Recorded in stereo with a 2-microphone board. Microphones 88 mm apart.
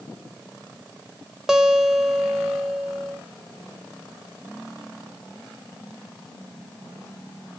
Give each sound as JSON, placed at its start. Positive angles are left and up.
{"t": 1.5, "sound": "a guitar", "side_deg": -5, "distance_m": 0.8}